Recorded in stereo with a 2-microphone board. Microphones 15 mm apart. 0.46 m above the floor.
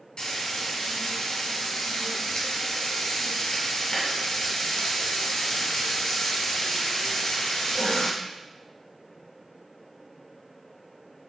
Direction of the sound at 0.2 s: 70° left (ahead or behind).